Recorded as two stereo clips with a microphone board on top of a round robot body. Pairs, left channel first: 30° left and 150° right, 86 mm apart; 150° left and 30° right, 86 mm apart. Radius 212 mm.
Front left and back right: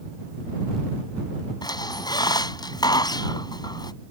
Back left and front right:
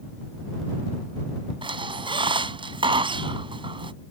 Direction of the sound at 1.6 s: 10° right.